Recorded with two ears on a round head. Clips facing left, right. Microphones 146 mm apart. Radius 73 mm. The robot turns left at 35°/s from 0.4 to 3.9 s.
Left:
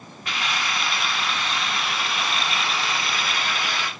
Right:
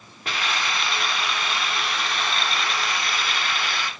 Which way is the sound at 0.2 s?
130° right.